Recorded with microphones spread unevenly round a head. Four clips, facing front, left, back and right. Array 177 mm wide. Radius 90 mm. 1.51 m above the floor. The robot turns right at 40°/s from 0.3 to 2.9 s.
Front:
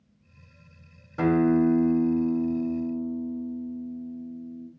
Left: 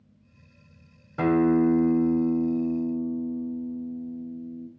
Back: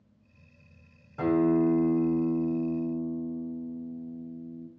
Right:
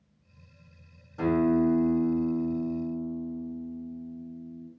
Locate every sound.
1.2 s a guitar: 50° left, 0.6 m; by 4.7 s 120° left, 0.6 m